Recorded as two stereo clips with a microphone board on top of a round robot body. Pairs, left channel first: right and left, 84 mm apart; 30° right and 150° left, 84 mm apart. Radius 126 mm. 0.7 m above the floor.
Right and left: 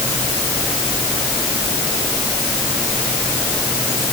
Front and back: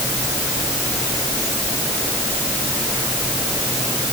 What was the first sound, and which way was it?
Only background noise.